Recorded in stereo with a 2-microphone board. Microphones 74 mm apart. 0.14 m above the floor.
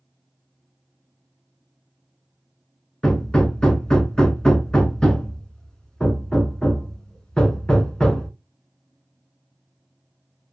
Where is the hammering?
10° left (ahead or behind), 0.6 m.